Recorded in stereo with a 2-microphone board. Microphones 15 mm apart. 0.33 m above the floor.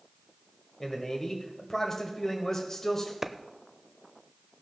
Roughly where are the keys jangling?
No keys jangling in this recording.